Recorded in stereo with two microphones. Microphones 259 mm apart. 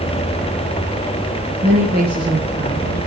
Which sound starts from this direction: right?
A woman speaking, at 1.6 s.